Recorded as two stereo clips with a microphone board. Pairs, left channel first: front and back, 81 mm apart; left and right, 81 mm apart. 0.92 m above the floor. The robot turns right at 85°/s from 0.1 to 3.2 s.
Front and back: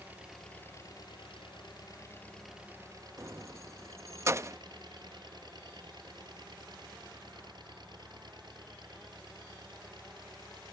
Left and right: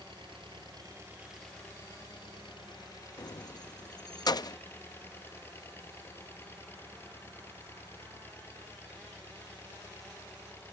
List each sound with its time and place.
0.0 s an engine running: 110° right; by 10.7 s 150° left
3.2 s keys jangling: 125° left